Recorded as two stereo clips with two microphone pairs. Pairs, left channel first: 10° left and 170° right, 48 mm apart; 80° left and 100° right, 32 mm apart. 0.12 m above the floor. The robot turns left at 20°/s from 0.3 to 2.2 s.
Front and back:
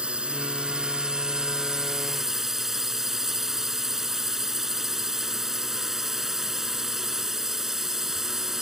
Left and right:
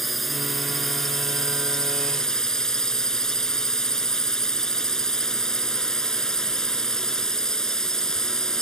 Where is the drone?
155° left; by 8.6 s 120° left.